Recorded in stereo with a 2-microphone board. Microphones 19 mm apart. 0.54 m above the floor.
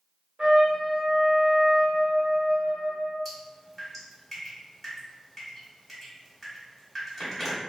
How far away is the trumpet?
About 0.7 m.